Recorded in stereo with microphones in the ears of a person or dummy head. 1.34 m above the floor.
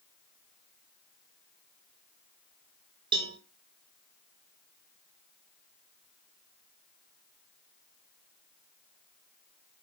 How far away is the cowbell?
About 0.9 m.